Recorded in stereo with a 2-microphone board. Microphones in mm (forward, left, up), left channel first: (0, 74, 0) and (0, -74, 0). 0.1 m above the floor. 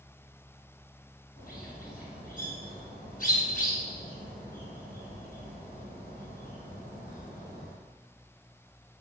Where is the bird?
65° left (ahead or behind), 3 m.